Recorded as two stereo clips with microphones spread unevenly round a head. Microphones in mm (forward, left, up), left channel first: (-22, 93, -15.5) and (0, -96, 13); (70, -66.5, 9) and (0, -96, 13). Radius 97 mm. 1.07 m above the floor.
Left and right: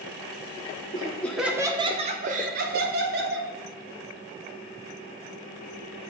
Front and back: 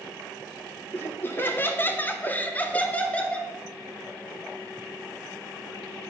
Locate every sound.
0.9 s laughter: 65° left, 0.7 m; by 3.5 s 50° right, 1.6 m